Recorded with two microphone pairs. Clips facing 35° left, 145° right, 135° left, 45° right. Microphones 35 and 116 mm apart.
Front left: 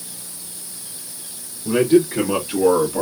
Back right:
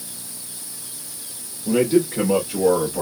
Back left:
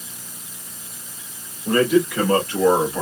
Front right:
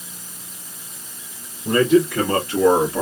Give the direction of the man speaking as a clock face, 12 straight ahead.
11 o'clock.